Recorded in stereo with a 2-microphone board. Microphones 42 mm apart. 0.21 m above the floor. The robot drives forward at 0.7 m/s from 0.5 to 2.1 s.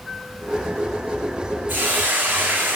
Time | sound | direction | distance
1.7 | a hiss | 65° right (ahead or behind) | 3 m